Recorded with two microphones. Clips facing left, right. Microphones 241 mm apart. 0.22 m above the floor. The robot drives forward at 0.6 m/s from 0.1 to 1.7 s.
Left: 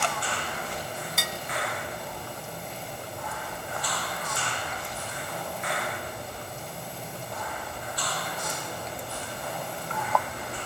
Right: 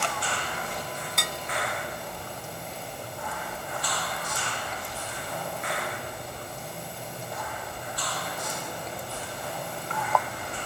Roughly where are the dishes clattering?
Centre.